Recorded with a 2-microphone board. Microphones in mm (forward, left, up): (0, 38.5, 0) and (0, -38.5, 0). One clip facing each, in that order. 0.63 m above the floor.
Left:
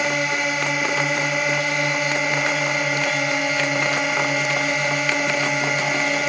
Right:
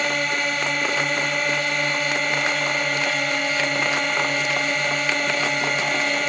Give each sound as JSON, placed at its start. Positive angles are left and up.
{"t": 0.0, "sound": "a drone", "side_deg": 5}